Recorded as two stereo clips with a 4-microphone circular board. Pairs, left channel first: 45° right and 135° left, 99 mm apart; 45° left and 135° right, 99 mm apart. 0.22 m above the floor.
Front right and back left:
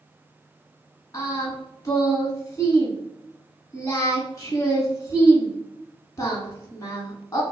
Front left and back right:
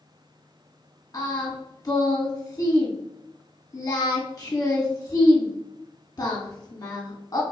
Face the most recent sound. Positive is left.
turn(degrees=5)